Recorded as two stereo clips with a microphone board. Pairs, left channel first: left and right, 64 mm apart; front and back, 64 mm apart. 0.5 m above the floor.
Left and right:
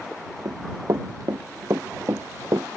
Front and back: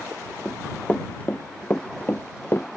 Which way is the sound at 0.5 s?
75° right.